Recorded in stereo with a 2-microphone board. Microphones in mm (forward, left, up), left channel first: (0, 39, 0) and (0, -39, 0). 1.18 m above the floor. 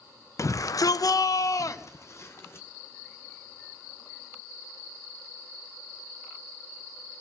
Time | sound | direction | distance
0.4 | a shout | 45° left (ahead or behind) | 0.6 m